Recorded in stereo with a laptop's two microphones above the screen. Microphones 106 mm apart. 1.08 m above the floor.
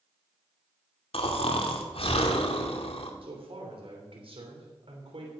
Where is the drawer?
I don't hear a drawer.